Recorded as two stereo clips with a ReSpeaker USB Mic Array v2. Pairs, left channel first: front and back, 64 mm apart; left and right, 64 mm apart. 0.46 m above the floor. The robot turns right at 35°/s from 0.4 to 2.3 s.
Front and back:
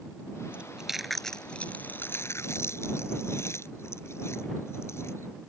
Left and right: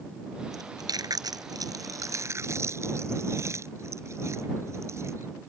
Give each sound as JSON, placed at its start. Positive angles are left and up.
{"t": 0.5, "sound": "chewing", "azimuth_deg": -110}